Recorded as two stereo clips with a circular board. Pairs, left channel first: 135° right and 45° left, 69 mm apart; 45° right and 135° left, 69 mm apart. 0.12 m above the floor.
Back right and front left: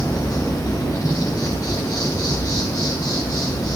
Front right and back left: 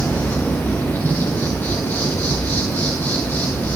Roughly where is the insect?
Right.